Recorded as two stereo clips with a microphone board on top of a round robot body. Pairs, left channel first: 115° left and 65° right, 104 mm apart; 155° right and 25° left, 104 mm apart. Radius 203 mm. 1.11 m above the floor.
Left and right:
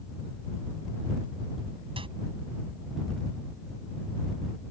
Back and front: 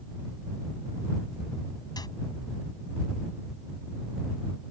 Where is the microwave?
105° right.